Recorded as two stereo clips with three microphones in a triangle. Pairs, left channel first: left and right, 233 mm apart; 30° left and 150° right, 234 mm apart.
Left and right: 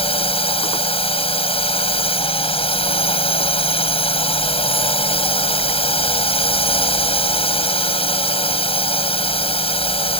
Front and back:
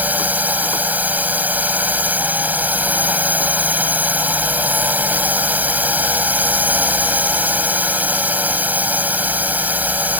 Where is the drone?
135° left.